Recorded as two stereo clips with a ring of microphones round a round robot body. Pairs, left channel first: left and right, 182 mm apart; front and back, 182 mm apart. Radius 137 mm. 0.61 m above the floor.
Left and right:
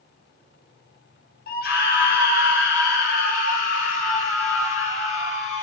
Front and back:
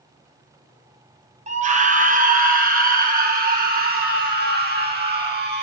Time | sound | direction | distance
1.5 | a scream | 130° left | 3 m